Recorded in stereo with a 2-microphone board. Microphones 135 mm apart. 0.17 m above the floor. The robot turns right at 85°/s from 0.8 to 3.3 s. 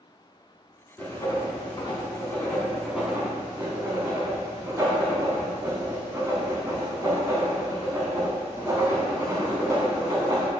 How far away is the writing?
About 0.8 m.